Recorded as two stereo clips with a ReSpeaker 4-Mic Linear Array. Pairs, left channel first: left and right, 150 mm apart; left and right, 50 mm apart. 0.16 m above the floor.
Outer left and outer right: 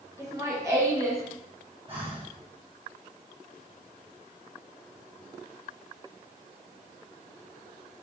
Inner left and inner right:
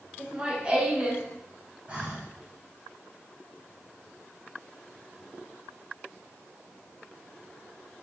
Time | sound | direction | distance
0.2 | laughter | 20° right (ahead or behind) | 2 m
1.9 | breathing | 35° right (ahead or behind) | 3 m